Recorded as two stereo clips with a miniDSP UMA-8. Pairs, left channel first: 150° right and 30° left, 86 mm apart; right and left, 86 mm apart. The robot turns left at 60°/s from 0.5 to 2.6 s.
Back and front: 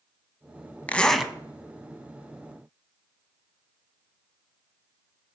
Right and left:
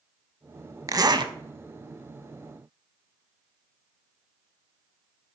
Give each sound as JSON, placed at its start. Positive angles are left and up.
{"t": 0.9, "sound": "a zipper", "azimuth_deg": 140, "distance_m": 0.6}